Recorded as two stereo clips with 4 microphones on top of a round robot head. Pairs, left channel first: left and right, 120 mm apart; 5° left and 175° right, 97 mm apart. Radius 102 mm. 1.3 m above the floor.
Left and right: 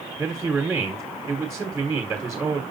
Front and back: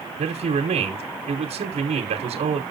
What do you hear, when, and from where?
0.2 s a man speaking: 175° right, 1.0 m